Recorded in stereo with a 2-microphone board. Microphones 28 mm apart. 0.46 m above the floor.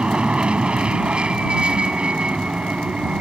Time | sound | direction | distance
0.0 | an aircraft | 35° right (ahead or behind) | ?